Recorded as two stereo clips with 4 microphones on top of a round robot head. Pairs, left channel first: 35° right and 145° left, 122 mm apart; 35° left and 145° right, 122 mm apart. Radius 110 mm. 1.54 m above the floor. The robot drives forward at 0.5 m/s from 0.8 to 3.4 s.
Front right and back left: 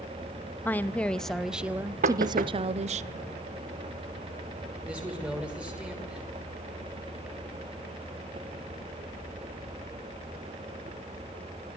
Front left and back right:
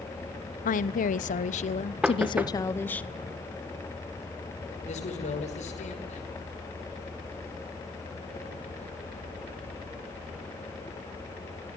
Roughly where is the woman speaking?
Ahead left.